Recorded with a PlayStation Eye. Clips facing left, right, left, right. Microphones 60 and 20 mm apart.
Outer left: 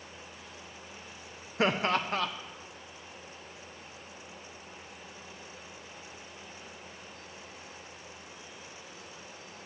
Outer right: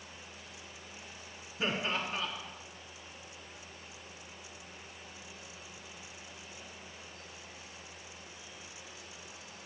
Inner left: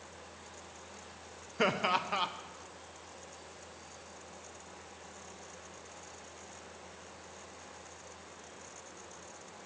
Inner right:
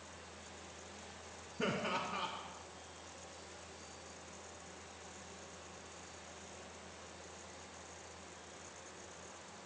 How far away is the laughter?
About 0.9 m.